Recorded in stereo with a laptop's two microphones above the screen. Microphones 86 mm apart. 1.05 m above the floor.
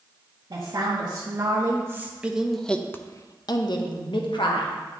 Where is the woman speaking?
50° right (ahead or behind), 1.5 m; by 4.7 s 75° left (ahead or behind), 1.3 m.